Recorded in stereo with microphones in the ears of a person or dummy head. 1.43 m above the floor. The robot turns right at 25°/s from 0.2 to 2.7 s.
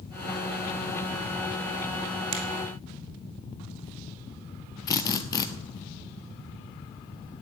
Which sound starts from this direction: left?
A drill, at 4.9 s.